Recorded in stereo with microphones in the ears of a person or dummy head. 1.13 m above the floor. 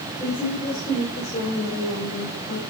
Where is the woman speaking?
15° left (ahead or behind), 3.5 m; by 2.6 s 55° left (ahead or behind), 4.5 m.